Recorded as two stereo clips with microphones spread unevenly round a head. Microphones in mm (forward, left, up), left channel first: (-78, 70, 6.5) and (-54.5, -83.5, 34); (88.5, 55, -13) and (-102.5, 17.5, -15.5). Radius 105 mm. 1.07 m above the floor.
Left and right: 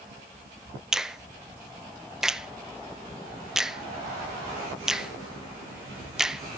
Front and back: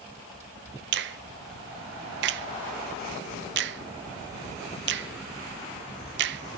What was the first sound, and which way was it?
A finger snap, 175° right.